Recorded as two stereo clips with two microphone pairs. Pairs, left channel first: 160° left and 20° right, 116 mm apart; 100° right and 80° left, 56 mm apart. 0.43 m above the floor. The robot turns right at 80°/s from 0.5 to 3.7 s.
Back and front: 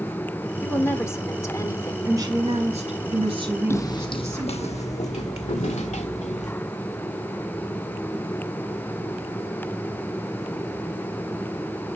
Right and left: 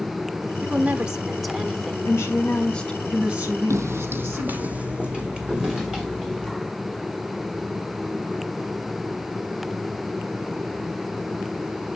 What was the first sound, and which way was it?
A woman speaking, 90° left.